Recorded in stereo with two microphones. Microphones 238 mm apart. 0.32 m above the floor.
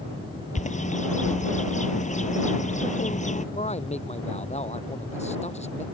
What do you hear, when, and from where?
0.6 s a bird: 30° left (ahead or behind)
3.5 s a man speaking: 25° left (ahead or behind)